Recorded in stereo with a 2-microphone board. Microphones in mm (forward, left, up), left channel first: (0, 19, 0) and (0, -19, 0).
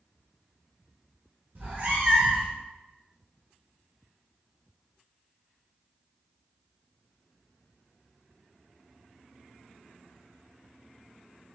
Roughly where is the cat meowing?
Right.